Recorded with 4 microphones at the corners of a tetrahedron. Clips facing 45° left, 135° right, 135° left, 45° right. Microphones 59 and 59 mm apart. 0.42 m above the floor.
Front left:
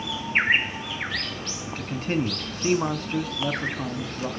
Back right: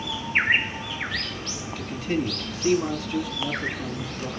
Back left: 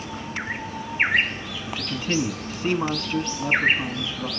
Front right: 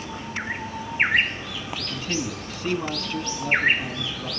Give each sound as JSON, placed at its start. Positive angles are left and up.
{"t": 1.7, "sound": "a man speaking", "azimuth_deg": 75, "distance_m": 2.5}